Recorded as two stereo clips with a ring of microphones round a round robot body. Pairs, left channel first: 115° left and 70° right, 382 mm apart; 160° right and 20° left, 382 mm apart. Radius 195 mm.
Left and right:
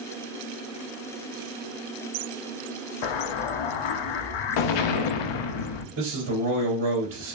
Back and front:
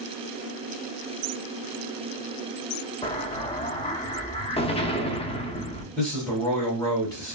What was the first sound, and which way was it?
An explosion, 125° left.